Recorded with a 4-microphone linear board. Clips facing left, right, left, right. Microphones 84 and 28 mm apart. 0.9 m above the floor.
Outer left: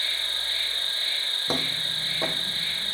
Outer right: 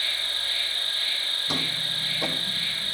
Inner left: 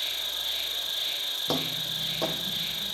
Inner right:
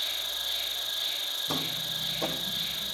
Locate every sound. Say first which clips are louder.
0.0 s an insect: outer right 1 dB, inner left 1 dB; 25° left (ahead or behind), 4 m
1.5 s footsteps: outer left 2 dB, inner left 2 dB; 40° left (ahead or behind), 2 m; by 3.0 s 20° left (ahead or behind), 2.5 m